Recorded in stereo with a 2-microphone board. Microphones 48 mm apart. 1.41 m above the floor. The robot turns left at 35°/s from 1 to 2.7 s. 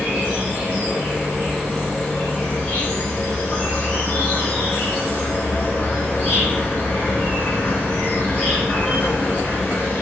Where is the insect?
160° right, 1.6 m; by 10.0 s 140° left, 1.6 m.